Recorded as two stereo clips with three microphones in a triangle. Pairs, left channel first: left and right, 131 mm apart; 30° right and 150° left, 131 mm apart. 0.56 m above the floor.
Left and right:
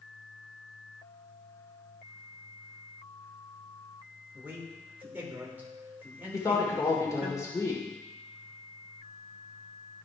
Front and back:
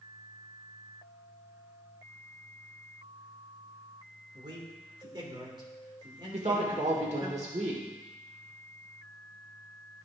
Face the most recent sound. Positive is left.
turn(degrees=150)